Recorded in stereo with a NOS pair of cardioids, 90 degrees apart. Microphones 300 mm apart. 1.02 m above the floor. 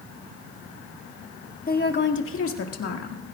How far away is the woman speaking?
About 1.8 m.